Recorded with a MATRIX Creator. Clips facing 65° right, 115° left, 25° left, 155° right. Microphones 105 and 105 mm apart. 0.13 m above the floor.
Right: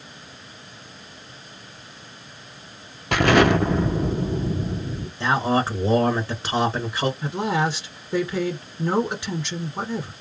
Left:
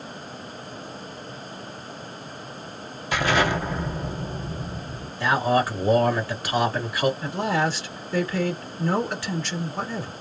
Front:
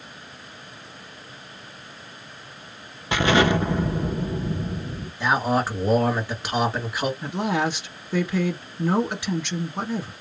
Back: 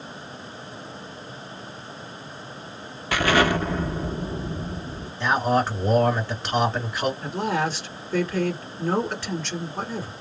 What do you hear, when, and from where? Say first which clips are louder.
3.1 s an explosion: right 6 dB, front 1 dB; 45° right, 0.8 m
5.2 s a man speaking: even, back 1 dB; 50° right, 1.6 m
7.2 s a woman speaking: right 1 dB, front 1 dB; 30° right, 1.4 m